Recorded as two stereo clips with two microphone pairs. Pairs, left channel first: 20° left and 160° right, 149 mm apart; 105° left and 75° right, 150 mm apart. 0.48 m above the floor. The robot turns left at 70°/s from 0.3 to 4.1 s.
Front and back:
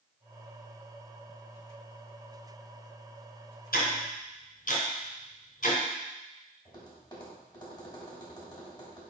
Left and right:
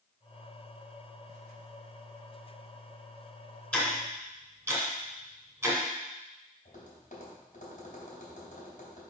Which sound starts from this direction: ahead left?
Ticking, at 3.7 s.